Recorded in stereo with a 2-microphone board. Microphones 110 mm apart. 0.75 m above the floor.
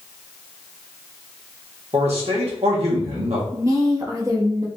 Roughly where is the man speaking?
Right.